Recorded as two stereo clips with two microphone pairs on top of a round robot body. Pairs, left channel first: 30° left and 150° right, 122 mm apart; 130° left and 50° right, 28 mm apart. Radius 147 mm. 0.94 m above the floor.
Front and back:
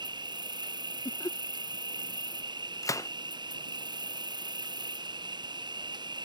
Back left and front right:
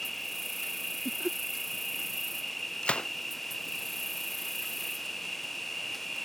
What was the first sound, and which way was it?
An insect, 165° right.